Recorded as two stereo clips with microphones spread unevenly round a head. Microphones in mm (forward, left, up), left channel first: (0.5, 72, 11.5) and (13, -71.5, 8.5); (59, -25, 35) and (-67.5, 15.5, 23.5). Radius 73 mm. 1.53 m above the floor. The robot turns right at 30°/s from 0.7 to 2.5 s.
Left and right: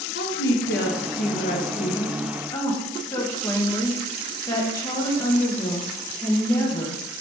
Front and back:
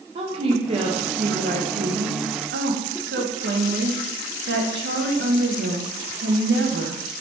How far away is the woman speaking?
About 1.2 m.